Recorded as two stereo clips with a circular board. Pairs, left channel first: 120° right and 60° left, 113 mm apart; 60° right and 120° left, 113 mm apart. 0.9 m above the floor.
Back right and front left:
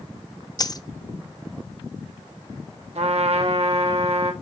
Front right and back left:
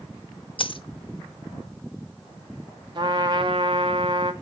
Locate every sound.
0.6 s a dropped coin: 75° right, 0.7 m
3.0 s a trumpet: 80° left, 1.6 m